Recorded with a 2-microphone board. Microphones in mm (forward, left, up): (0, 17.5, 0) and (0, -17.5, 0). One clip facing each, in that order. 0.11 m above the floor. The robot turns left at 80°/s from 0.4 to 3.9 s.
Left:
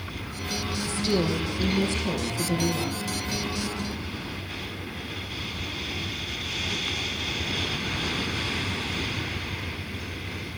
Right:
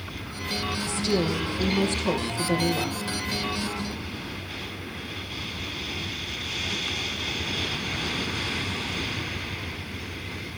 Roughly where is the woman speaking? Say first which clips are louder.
Left 1 dB; ahead left.